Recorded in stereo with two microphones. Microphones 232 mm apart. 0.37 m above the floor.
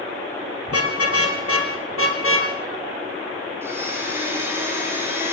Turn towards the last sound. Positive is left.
turn(degrees=-10)  # may be behind; listen again after turning